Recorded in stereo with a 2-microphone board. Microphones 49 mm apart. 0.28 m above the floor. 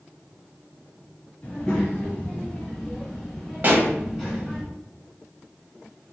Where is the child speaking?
15° left (ahead or behind), 1.2 m; by 4.6 s 10° right (ahead or behind), 1.3 m.